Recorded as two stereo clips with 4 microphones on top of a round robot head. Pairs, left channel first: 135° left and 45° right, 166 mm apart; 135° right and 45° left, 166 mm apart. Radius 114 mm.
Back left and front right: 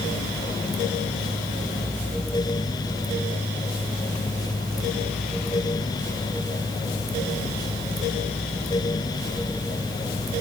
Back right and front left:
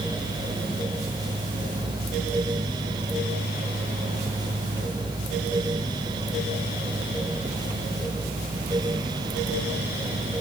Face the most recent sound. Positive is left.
No sound to turn to.